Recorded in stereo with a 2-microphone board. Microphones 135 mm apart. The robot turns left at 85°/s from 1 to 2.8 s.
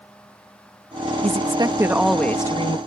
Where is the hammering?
I don't hear hammering.